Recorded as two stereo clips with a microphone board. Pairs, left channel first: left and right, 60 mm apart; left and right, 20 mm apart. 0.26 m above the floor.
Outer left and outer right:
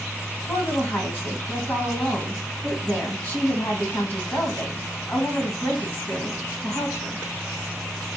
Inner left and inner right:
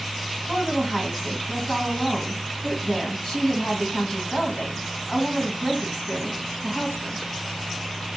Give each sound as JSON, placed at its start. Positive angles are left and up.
{"t": 0.5, "sound": "a woman speaking", "side_deg": 35, "distance_m": 1.7}